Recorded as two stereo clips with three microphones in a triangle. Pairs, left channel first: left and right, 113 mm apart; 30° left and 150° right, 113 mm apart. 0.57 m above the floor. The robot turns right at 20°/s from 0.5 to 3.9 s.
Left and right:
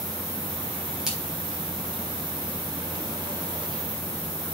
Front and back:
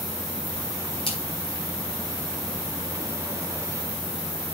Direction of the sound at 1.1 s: 5° right.